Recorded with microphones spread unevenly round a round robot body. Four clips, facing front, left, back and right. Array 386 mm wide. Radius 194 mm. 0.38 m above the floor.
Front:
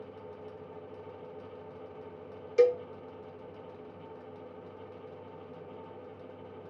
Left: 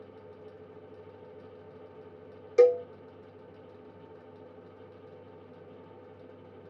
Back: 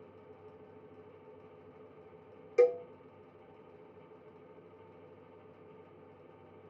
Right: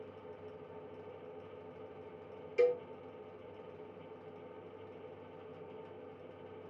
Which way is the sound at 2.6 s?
100° left.